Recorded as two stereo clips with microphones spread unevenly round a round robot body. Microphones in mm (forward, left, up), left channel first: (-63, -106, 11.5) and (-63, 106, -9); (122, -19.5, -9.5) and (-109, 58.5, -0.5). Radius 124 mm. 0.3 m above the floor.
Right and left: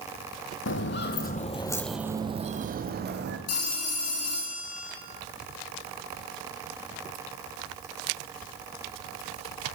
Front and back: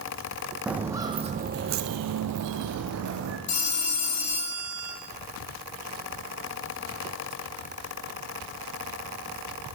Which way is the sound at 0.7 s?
115° right.